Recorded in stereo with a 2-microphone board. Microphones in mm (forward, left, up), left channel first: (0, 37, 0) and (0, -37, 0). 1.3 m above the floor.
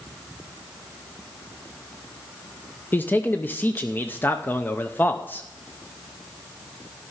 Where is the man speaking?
25° left (ahead or behind), 0.6 m.